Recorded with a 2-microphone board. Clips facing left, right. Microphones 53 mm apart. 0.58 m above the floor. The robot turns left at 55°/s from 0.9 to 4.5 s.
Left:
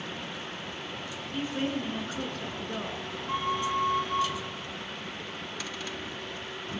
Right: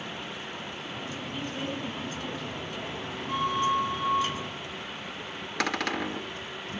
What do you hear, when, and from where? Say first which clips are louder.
1.3 s a woman speaking: left 5 dB; 175° left, 7 m; by 3.1 s 80° left, 7 m
3.3 s a flute: right 3 dB; 165° left, 2.5 m; by 4.3 s 110° left, 2.5 m
5.6 s a cupboard door: right 13 dB; 65° right (ahead or behind), 0.6 m